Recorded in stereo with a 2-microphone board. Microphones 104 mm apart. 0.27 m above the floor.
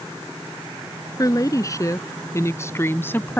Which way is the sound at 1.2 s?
35° left (ahead or behind).